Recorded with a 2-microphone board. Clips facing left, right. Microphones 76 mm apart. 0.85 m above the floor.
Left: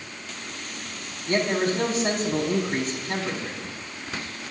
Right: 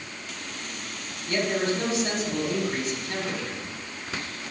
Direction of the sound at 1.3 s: 45° left (ahead or behind).